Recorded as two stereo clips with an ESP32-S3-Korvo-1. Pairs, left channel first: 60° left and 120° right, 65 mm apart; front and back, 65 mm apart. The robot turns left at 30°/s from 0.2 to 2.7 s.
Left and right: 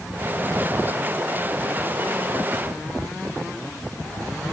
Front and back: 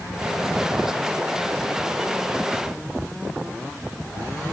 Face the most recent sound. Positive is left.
No sound to turn to.